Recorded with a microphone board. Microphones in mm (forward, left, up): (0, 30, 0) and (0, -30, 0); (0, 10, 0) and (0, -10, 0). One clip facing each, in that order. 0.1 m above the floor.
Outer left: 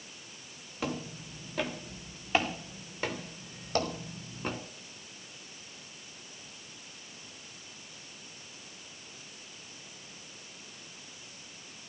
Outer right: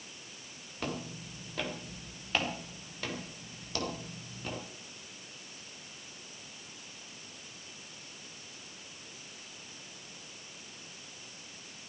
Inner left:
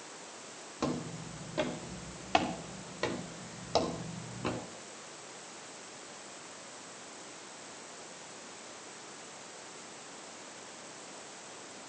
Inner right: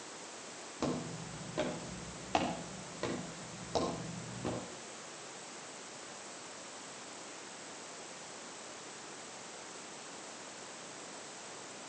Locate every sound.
0.8 s footsteps: 5° left (ahead or behind), 3 m; by 4.6 s 40° left (ahead or behind), 3 m